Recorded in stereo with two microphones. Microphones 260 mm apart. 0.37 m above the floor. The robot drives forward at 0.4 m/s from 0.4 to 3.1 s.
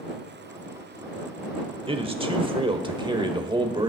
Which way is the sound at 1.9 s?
20° right (ahead or behind).